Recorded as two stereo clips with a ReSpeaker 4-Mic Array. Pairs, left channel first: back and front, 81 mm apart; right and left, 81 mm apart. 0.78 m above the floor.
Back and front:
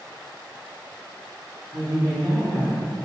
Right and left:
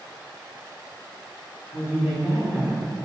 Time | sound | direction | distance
1.7 | a woman speaking | 60° left | 1.1 m